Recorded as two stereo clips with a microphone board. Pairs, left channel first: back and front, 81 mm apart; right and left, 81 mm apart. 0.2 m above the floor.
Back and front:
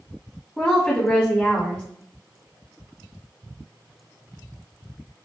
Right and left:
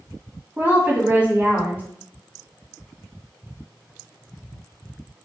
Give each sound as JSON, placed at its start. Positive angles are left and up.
{"t": 0.6, "sound": "a woman speaking", "azimuth_deg": 110, "distance_m": 1.4}